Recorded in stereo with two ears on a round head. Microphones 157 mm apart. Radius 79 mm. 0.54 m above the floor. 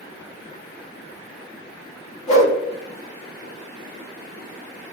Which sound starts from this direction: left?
A whoosh, at 2.3 s.